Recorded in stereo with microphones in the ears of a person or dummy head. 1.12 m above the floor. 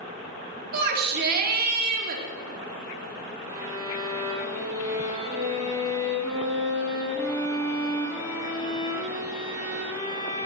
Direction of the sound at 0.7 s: 55° right (ahead or behind).